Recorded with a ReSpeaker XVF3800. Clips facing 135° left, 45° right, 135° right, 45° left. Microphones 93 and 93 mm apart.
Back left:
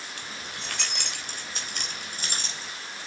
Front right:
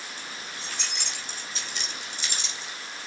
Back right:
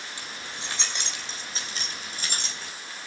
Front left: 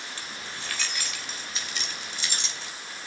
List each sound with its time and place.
0.2 s keys jangling: 150° left, 3 m; by 2.7 s 175° right, 3.5 m